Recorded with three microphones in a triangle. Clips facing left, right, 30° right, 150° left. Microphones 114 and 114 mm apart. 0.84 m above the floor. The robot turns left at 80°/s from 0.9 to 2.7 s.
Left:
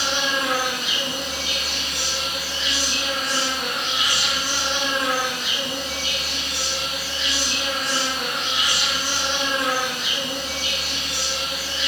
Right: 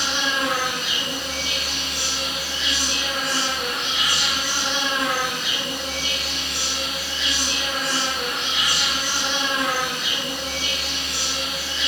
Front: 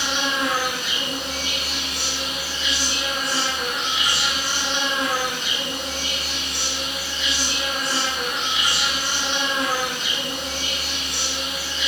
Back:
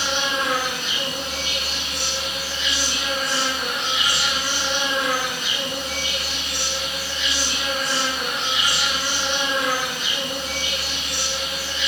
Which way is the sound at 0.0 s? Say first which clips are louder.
Even, even; 50° left.